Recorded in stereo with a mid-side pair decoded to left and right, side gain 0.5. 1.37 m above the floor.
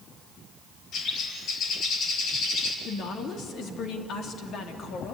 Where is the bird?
70° left, 3.5 m.